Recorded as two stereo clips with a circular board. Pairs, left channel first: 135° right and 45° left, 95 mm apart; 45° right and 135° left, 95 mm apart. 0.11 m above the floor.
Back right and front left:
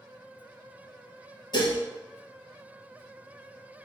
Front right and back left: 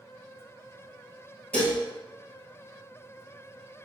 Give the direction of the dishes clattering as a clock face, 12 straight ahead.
4 o'clock.